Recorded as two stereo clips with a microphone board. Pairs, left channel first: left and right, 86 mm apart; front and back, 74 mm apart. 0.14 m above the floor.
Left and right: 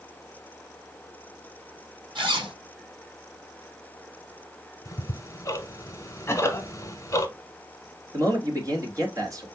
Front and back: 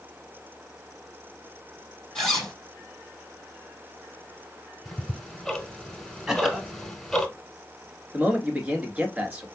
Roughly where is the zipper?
Right.